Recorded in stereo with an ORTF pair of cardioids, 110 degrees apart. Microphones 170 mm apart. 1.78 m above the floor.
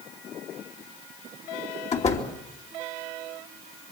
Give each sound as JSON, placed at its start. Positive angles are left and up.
{"t": 1.9, "sound": "a door slam", "azimuth_deg": 40, "distance_m": 3.0}